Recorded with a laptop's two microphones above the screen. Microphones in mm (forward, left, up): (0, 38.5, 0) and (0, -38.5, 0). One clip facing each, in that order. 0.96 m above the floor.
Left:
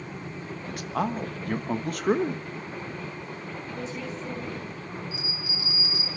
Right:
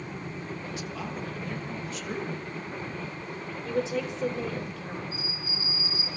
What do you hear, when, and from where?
0.7 s a man speaking: 55° left (ahead or behind), 1.4 m
3.6 s a woman speaking: 85° right, 4 m
5.1 s a bell: 85° left, 6 m